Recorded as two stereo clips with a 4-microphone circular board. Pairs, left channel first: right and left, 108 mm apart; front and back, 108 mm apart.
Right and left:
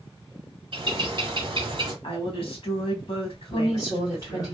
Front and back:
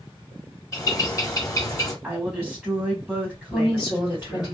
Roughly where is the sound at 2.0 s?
Right.